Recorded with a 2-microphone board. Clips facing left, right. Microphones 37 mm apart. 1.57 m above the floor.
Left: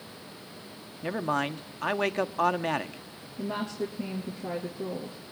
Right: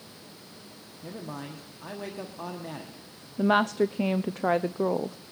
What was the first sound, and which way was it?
A man speaking, 60° left (ahead or behind).